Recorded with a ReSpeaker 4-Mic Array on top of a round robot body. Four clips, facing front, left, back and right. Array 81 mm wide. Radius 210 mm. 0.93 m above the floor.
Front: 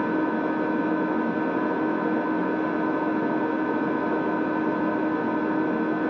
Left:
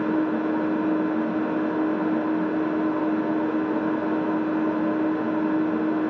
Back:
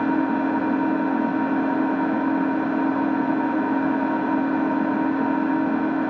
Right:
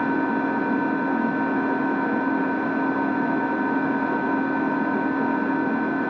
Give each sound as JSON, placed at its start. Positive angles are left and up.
{"t": 0.0, "sound": "an engine running", "azimuth_deg": -145, "distance_m": 1.6}